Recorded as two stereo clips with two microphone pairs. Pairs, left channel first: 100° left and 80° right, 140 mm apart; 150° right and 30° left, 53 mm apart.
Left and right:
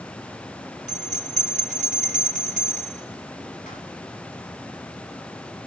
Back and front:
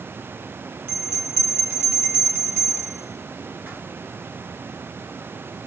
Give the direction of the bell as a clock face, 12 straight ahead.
9 o'clock.